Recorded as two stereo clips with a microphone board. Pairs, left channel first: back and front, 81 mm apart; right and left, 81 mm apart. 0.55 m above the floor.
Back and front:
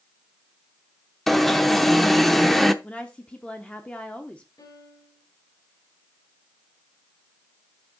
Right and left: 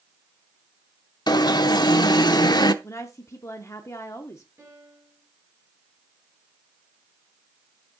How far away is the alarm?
About 0.6 m.